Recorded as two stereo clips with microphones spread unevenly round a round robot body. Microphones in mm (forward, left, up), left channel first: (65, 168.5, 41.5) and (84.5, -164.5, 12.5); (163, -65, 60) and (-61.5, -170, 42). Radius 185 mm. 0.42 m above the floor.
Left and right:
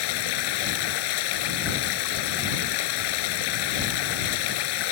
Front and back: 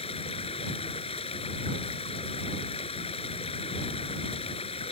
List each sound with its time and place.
0.0 s running water: 100° left